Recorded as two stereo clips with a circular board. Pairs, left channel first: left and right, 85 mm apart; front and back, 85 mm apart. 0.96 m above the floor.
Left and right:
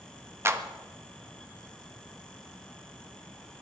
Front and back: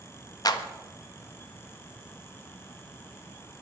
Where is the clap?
35° right, 1.2 m.